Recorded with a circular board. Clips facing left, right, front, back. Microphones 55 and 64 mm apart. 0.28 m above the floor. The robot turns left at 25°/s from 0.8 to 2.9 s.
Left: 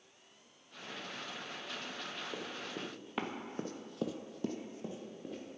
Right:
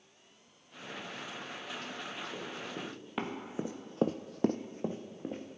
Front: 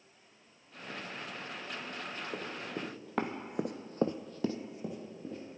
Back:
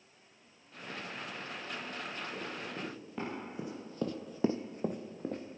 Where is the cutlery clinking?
I don't hear cutlery clinking.